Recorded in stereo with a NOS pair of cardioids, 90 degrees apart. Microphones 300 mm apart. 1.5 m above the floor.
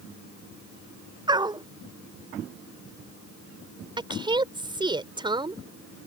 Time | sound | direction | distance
1.3 | a dog barking | 15° right | ?
4.0 | a woman speaking | 15° right | ?